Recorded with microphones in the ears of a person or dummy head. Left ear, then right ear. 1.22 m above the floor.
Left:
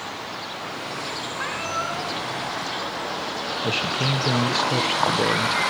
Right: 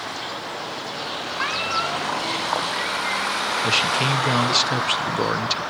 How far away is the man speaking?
About 0.9 m.